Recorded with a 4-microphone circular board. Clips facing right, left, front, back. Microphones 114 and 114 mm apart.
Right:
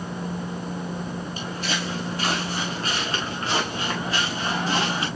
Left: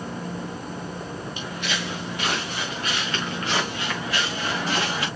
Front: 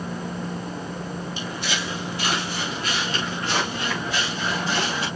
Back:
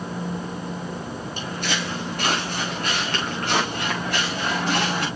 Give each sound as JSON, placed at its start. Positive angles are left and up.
{"t": 1.4, "sound": "footsteps", "azimuth_deg": -140, "distance_m": 3.5}